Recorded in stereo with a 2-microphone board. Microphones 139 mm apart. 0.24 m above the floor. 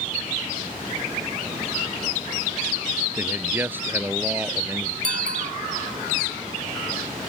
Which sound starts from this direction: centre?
A man speaking, at 3.2 s.